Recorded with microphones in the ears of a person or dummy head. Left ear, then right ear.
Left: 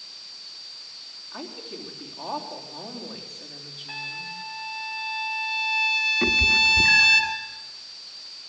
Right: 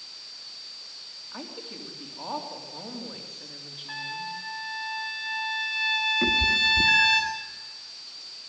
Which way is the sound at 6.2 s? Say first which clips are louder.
Left 4 dB; 15° left (ahead or behind).